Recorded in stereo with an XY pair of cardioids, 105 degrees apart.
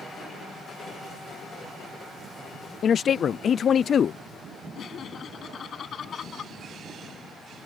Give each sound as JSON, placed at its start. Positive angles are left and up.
{"t": 2.8, "sound": "a man speaking", "azimuth_deg": 55}
{"t": 4.8, "sound": "laughter", "azimuth_deg": 55}